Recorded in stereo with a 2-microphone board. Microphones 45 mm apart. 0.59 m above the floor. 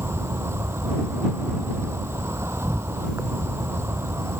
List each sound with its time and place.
0.0 s an insect: 80° right